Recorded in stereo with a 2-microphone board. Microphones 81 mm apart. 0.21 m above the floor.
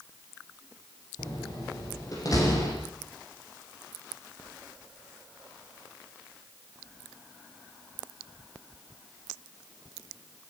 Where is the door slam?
45° left (ahead or behind), 8 m.